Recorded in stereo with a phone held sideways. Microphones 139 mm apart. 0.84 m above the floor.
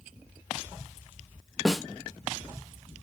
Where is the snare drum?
Centre (ahead or behind), 0.5 m.